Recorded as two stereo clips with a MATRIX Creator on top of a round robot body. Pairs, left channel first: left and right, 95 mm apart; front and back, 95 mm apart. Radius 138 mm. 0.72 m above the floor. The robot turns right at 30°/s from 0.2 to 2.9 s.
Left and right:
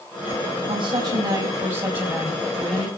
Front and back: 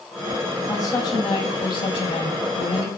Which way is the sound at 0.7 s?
60° right.